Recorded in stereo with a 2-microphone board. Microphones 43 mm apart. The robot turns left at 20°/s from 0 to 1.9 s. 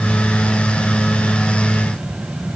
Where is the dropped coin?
No dropped coin in this recording.